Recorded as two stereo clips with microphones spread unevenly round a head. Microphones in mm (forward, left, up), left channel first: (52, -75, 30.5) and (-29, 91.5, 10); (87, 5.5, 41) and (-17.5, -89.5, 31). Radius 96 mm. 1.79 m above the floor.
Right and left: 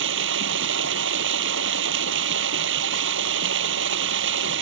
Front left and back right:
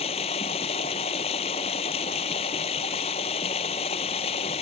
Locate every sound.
0.0 s running water: 100° left